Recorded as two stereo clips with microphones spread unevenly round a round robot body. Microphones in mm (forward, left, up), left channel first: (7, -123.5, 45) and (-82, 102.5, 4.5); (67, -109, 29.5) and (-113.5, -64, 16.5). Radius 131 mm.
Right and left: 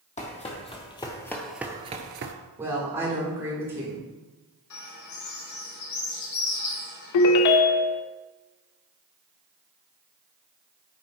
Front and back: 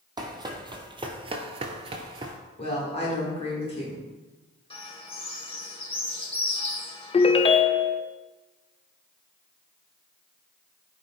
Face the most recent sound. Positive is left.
turn(degrees=-75)